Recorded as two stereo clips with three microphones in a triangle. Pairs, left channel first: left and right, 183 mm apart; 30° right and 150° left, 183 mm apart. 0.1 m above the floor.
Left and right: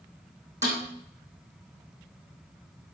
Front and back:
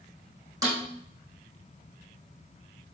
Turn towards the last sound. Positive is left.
turn(degrees=-140)